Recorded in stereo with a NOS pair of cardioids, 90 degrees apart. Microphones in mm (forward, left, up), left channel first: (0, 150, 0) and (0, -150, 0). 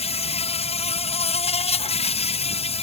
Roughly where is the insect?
Ahead.